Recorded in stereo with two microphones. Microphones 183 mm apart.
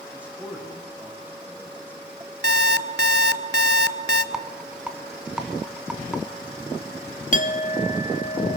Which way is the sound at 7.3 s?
45° left (ahead or behind).